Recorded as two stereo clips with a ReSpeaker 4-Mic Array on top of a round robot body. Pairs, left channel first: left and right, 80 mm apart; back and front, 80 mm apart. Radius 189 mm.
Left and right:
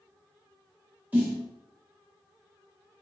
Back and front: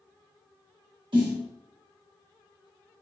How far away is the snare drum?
About 1.6 m.